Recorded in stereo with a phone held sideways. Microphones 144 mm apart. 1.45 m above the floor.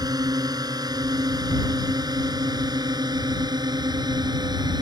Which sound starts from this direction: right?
A drone, at 0.0 s.